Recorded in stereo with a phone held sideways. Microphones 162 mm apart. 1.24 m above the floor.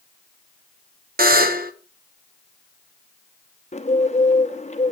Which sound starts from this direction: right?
A buzzer, at 1.2 s.